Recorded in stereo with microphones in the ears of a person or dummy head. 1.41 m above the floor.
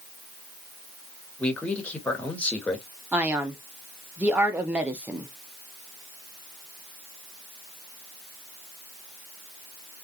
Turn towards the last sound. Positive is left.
turn(degrees=-10)  # may be behind; listen again after turning